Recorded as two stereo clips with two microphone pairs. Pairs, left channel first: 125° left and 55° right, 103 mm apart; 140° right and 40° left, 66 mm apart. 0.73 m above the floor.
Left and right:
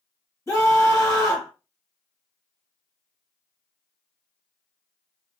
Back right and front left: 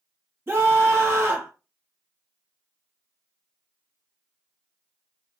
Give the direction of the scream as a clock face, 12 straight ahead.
9 o'clock.